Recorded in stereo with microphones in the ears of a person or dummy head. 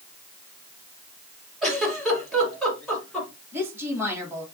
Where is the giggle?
Centre (ahead or behind), 4 m.